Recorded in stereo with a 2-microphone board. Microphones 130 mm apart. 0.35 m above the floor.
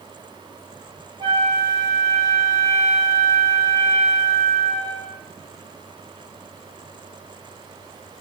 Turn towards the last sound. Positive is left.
turn(degrees=-35)  # may be behind; listen again after turning